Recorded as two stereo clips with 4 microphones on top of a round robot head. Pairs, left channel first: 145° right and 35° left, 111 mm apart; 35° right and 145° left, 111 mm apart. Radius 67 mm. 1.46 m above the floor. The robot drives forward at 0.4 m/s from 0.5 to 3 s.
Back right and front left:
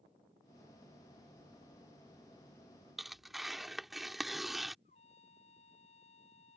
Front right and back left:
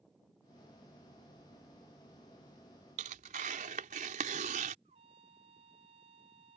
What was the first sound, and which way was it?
Tearing paper, 125° left.